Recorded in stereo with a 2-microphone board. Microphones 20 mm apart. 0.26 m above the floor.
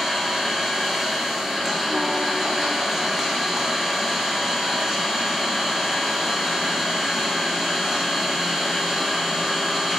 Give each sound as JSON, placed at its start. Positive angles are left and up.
{"t": 0.0, "sound": "an engine running", "side_deg": -25, "distance_m": 7.5}